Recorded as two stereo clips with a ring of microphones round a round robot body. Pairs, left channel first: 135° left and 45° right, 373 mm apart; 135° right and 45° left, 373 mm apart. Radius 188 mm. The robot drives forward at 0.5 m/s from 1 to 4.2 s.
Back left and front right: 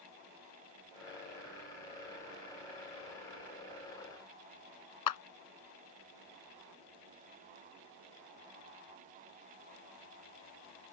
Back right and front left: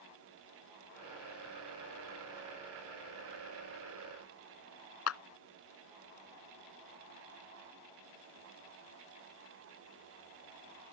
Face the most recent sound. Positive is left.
turn(degrees=170)